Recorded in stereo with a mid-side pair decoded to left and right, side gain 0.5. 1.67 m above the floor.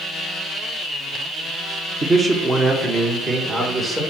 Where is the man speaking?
35° right, 1.3 m; by 4.0 s 25° right, 3 m.